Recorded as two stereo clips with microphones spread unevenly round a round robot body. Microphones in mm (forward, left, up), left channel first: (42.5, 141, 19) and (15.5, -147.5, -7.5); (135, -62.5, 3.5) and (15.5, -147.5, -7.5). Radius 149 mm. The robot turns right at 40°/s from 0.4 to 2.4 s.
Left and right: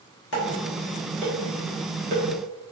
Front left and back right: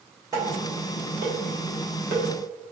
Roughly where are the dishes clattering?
Behind left.